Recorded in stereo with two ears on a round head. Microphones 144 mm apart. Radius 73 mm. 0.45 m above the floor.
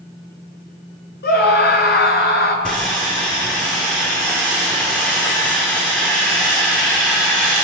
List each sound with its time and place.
1.2 s a scream: 70° left (ahead or behind), 5.5 m
2.6 s sawing: 5° left (ahead or behind), 8.5 m